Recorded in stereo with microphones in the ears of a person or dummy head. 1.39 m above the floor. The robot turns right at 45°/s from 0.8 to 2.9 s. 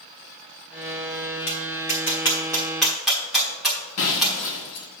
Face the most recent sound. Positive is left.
turn(degrees=60)  # may be behind; listen again after turning